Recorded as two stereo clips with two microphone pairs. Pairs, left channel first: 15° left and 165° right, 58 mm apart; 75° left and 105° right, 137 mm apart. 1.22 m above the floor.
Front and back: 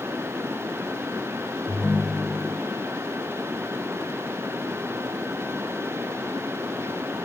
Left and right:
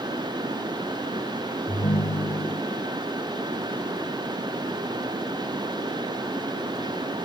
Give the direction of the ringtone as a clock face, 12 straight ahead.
9 o'clock.